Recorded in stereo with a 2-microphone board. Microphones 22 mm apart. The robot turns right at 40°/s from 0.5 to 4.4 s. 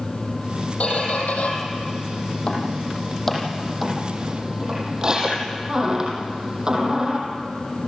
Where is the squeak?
65° left (ahead or behind), 5 m; by 7.2 s 30° right (ahead or behind), 5 m.